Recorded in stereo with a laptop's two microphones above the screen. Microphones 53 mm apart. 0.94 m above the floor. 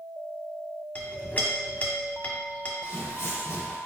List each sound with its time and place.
0.9 s a clink: 30° left (ahead or behind), 1.1 m
2.8 s footsteps: 55° left (ahead or behind), 1.6 m